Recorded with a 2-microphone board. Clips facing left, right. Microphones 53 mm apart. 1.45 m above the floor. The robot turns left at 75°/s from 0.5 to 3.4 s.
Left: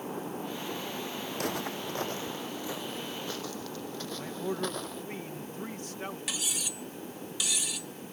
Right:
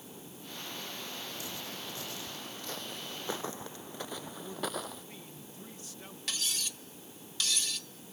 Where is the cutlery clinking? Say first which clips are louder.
Left 2 dB; 10° left (ahead or behind).